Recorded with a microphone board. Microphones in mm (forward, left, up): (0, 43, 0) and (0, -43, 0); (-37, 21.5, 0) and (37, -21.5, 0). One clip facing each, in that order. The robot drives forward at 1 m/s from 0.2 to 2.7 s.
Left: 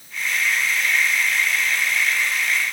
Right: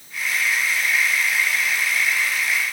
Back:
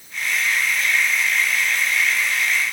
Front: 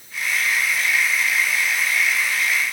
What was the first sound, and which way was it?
Only background noise.